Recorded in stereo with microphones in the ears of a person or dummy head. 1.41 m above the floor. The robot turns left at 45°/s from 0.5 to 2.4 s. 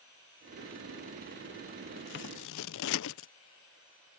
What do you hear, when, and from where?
2.0 s scissors: 50° left (ahead or behind); by 3.3 s 70° left (ahead or behind)